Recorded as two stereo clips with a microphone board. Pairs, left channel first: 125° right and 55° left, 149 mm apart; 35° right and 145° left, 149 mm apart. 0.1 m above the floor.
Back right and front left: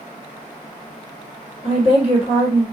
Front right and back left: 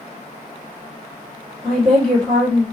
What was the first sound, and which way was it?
A woman speaking, 115° right.